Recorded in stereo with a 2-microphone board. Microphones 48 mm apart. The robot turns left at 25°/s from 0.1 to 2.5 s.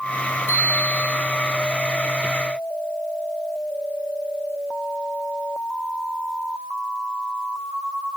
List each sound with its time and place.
0.5 s a bicycle bell: 80° left, 8 m; by 1.1 s 65° left (ahead or behind), 8 m